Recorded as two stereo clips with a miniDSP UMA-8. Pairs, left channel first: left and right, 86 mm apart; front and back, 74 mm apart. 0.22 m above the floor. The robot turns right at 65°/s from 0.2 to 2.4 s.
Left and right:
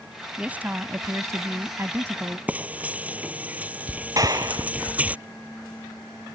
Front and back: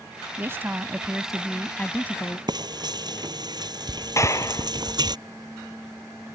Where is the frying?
160° right.